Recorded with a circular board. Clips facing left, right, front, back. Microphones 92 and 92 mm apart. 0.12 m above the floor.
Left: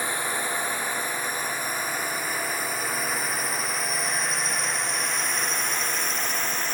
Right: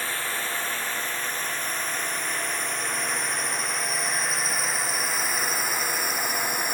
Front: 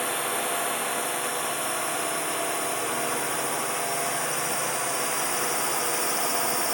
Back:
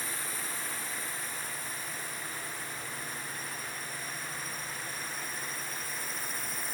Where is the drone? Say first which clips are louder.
Left 2 dB, front 12 dB; 15° left; by 6.7 s 10° right.